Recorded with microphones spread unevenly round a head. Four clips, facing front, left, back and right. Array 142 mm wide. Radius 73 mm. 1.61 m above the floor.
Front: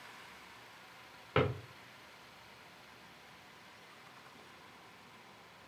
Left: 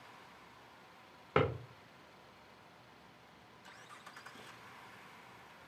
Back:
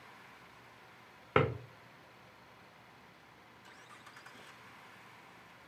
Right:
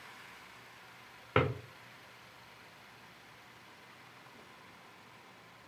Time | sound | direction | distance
1.4 | a drawer | 170° left | 1.4 m